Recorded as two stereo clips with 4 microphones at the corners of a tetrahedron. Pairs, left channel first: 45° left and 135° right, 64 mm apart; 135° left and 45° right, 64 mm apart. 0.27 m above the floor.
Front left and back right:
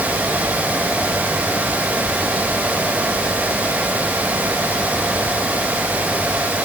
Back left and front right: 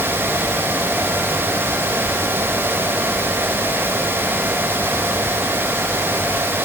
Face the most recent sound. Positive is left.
No sound to turn to.